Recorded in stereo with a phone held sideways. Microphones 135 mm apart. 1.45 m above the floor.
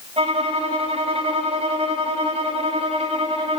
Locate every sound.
0.2 s a violin: 50° right (ahead or behind), 3 m